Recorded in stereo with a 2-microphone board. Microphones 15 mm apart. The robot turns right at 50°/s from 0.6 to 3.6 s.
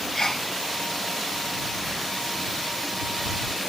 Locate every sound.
0.1 s a sneeze: 35° left (ahead or behind)